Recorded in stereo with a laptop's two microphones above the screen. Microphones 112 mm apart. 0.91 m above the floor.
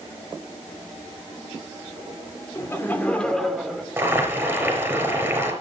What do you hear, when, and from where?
2.5 s laughter: 20° left (ahead or behind), 2 m; by 3.9 s 5° right (ahead or behind), 2.5 m
4.0 s boiling: 15° right (ahead or behind), 5 m